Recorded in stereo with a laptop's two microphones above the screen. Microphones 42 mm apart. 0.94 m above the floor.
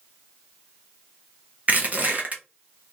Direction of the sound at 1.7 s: 45° right (ahead or behind).